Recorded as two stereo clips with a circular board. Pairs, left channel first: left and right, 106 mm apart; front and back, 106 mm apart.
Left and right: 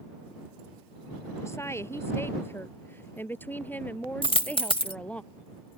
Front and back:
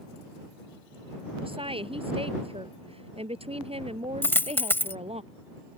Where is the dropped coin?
70° left.